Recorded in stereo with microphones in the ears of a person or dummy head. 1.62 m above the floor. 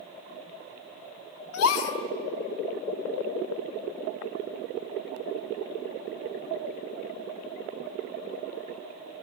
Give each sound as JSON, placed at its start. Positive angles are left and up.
{"t": 1.5, "sound": "a gasp", "side_deg": 75, "distance_m": 3.5}